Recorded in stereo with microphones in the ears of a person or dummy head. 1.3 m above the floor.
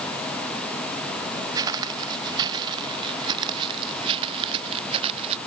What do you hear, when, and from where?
1.6 s footsteps: 20° right (ahead or behind); by 5.4 s 30° right (ahead or behind)